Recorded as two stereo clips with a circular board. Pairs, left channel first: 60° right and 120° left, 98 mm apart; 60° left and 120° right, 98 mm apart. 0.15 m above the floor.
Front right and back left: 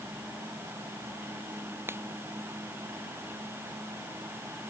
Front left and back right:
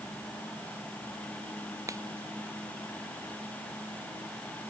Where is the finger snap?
175° right.